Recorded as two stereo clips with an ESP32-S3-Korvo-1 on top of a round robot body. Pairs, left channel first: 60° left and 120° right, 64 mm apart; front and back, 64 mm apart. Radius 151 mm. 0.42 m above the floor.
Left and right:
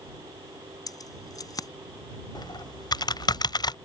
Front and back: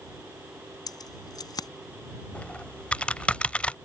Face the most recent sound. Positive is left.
turn(degrees=75)